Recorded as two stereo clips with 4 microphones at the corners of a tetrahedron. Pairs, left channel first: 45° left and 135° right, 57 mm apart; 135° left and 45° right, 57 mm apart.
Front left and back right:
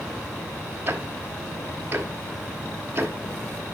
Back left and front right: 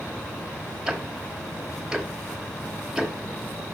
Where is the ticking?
120° right, 1.0 m.